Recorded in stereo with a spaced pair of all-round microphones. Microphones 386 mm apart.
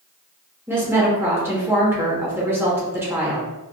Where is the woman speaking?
5° right (ahead or behind), 1.1 m.